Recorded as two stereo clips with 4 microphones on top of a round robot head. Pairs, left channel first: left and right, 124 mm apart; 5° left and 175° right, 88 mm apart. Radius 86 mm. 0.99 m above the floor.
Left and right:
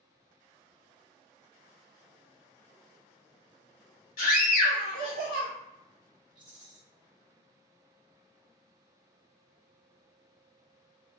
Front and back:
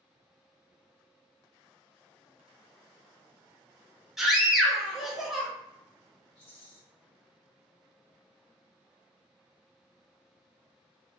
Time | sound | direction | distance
4.2 | a scream | 100° left | 1.5 m
6.3 | a rattle | 10° right | 1.2 m